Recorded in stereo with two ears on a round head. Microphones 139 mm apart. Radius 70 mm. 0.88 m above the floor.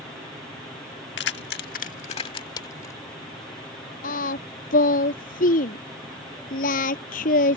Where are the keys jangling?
85° left; by 3.0 s 20° left (ahead or behind).